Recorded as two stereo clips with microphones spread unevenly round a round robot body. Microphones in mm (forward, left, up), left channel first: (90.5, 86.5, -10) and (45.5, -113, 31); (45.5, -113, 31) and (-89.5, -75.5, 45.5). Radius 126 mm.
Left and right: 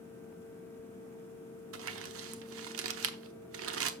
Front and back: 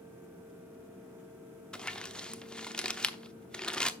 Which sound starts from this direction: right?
Crumpling, at 1.7 s.